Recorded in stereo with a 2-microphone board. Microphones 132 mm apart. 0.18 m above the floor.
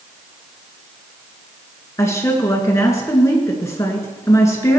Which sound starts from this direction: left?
A woman speaking, at 2.0 s.